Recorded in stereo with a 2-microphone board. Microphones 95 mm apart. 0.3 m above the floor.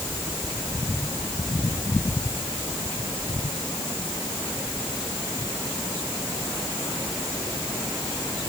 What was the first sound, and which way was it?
Only background noise.